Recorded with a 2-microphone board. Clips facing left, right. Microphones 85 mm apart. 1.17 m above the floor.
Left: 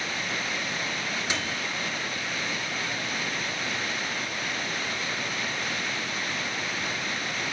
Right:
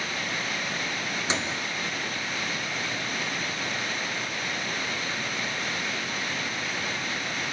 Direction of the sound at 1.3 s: 25° right (ahead or behind).